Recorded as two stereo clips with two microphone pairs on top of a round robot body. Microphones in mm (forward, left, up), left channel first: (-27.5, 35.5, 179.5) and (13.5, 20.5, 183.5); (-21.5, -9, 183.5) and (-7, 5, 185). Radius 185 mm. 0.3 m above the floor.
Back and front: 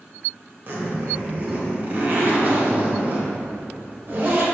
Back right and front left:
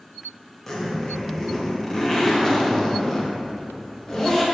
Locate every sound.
0.7 s a zipper: 70° right, 1.6 m